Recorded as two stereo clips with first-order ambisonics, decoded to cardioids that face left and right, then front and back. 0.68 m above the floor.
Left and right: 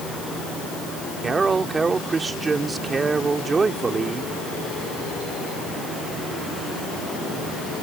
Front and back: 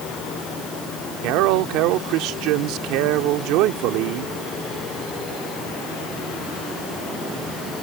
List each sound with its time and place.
1.2 s a man speaking: 165° right